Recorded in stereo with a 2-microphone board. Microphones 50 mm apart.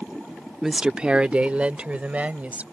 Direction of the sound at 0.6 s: 5° right (ahead or behind).